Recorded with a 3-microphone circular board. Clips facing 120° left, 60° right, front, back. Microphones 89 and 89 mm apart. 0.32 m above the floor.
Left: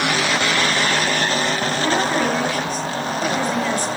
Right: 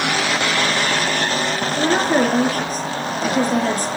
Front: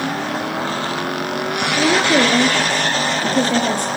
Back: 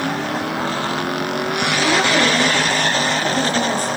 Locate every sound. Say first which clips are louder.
1.8 s a woman speaking: right 5 dB, front 3 dB; 15° right, 6.5 m